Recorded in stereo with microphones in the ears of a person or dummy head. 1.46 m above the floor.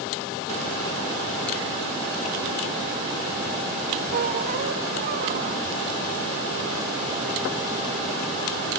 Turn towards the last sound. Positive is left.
turn(degrees=-30)  # may be behind; listen again after turning